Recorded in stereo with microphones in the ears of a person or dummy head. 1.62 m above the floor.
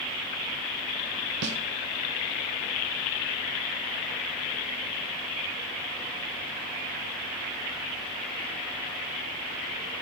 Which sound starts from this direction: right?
A snare drum, at 1.4 s.